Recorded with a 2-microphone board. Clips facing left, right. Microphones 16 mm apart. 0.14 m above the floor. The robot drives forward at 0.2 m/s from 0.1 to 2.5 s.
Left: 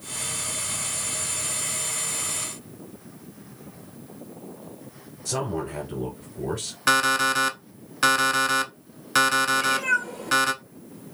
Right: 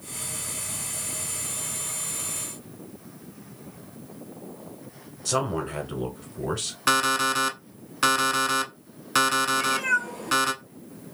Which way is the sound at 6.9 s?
Centre (ahead or behind).